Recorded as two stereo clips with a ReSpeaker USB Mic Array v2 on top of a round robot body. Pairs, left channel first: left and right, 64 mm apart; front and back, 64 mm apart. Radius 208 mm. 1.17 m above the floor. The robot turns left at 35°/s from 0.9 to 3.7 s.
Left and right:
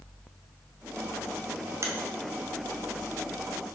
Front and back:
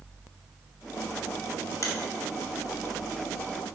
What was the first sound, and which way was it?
A finger snap, 40° right.